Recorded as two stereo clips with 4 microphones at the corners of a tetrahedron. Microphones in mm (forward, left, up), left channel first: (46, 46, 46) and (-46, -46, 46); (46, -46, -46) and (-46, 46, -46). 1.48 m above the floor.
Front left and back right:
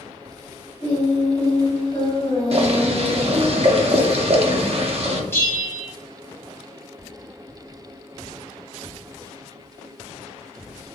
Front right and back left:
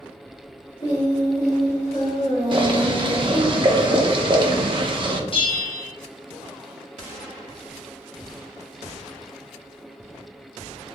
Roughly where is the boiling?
Behind.